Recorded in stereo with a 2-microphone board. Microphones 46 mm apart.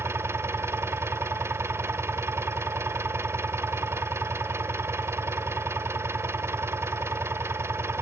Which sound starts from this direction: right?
An engine running, at 0.0 s.